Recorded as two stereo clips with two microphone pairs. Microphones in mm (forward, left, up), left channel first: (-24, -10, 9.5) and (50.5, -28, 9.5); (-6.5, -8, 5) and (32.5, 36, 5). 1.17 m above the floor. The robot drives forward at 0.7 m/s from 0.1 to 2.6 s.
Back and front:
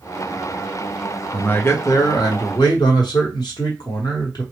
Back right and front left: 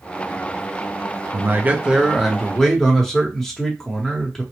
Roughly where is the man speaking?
Left.